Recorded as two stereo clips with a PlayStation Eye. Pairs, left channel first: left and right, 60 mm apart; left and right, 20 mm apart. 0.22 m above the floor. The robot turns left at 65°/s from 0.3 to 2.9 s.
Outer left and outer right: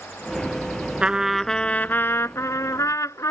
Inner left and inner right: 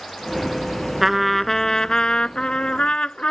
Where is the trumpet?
160° right; by 3.3 s 75° left.